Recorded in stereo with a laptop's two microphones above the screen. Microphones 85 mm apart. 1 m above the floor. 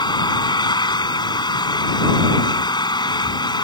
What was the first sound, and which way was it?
An engine running, 70° left (ahead or behind).